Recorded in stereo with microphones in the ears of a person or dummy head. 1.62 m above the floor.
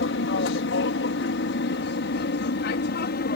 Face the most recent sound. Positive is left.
turn(degrees=55)  # may be behind; listen again after turning